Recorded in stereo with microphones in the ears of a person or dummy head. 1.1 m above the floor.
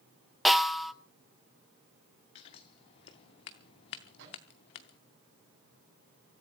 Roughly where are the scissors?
Left.